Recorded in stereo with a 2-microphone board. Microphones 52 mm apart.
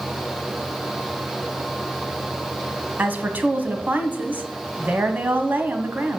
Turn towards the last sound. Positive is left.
turn(degrees=-35)  # may be behind; listen again after turning